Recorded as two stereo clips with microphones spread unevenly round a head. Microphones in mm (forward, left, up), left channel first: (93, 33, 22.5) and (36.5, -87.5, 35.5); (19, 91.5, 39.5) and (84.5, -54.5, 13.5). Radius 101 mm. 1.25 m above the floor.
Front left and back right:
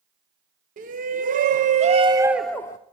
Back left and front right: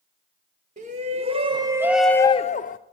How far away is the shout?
About 1.3 m.